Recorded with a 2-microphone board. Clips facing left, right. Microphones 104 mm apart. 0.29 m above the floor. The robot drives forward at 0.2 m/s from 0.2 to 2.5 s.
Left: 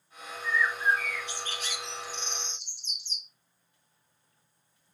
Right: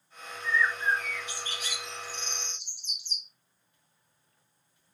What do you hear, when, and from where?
0.4 s a bird: 15° right (ahead or behind), 3 m